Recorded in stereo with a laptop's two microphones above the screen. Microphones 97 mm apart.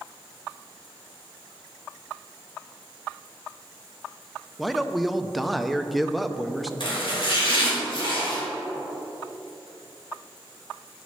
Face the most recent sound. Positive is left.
turn(degrees=55)  # may be behind; listen again after turning